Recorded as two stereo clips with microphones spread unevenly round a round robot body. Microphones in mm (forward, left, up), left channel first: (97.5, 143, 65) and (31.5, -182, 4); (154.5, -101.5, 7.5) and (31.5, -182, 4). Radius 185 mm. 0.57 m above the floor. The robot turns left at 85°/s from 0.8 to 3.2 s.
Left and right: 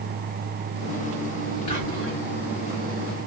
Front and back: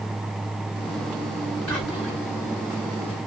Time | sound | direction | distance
1.7 | whispering | 75° left | 1.4 m